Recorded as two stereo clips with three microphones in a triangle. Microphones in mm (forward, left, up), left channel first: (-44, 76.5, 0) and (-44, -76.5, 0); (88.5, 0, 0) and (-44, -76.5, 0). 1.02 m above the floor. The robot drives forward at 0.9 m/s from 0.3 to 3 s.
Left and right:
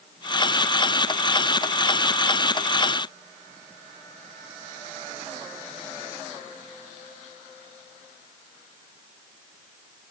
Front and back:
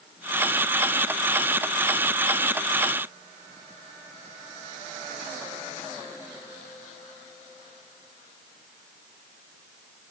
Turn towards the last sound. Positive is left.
No sound to turn to.